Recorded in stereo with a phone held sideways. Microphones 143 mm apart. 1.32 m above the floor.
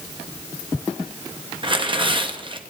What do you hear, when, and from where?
1.6 s tearing paper: 35° right (ahead or behind), 0.9 m